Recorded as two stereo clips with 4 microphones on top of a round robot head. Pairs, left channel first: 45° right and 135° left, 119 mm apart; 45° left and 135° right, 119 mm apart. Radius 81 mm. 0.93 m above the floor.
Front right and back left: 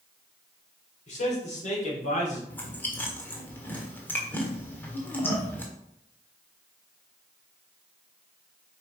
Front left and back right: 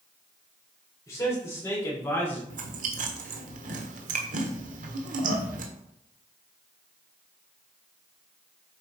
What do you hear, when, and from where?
1.1 s a man speaking: 20° right, 4 m; by 2.4 s 30° right, 3 m
2.5 s chewing: 120° right, 1.4 m